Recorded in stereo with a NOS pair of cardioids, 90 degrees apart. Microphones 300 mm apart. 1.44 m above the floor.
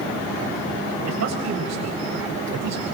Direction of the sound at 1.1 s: 65° right.